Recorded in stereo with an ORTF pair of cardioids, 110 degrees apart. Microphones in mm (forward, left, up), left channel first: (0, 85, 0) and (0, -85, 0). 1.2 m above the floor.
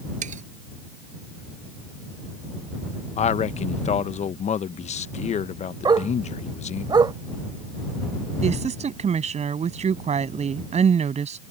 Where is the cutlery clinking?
45° right.